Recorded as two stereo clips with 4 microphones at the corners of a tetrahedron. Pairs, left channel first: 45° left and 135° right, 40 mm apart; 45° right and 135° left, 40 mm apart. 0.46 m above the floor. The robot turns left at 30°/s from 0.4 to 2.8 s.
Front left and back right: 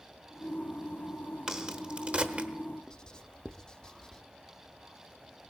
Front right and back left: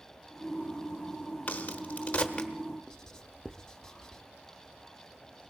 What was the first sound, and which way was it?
A crack, 70° right.